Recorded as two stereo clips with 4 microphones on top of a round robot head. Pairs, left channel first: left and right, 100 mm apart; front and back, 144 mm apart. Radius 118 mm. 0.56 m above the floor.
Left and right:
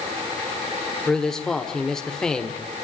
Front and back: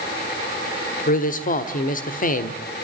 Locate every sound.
1.1 s a man speaking: 5° left, 1.8 m